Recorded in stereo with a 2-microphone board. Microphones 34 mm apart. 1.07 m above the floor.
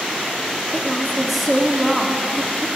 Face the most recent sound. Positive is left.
turn(degrees=0)  # may be behind; listen again after turning